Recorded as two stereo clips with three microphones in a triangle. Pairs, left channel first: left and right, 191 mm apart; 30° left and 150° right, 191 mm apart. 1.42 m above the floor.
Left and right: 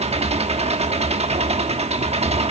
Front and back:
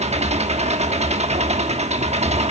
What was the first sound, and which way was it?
An engine running, 125° right.